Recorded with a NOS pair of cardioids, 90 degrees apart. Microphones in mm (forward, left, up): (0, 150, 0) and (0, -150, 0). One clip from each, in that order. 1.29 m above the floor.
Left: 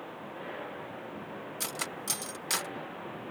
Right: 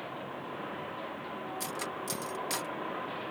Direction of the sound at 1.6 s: 30° left.